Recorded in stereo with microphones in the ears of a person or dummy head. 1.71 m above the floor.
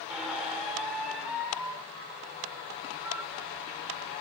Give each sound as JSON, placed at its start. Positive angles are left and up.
{"t": 0.1, "sound": "a squeak", "side_deg": -10, "distance_m": 0.9}